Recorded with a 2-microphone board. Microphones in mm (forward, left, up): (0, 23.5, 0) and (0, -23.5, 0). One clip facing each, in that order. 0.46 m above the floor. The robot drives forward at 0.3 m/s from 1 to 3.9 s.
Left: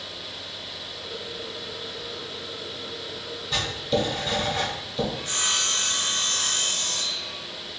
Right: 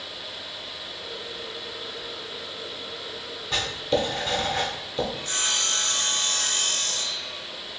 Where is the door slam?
No door slam in this recording.